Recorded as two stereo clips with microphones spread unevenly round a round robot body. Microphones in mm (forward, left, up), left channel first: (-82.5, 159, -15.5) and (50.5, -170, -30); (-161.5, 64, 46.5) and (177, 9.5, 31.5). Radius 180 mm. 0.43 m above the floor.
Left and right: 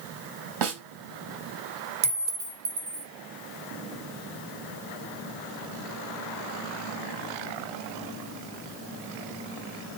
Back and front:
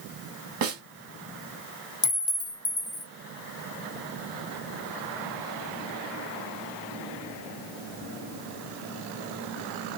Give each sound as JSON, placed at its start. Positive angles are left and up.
{"t": 0.6, "sound": "a snare drum", "azimuth_deg": -55, "distance_m": 2.0}
{"t": 2.0, "sound": "a clink", "azimuth_deg": -115, "distance_m": 0.8}